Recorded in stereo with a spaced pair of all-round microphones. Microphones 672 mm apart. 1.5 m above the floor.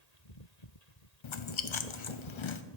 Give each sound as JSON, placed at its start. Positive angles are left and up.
{"t": 1.2, "sound": "chewing", "side_deg": 45, "distance_m": 0.6}